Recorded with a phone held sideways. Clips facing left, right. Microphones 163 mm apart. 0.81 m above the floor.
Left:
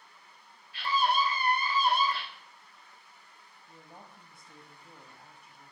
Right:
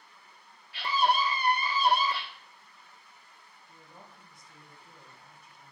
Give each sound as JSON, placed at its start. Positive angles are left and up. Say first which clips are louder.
{"t": 0.7, "sound": "a scream", "louder": "right 1 dB", "side_deg": -75, "distance_m": 1.3}
{"t": 3.7, "sound": "a woman speaking", "louder": "left 2 dB", "side_deg": 55, "distance_m": 1.2}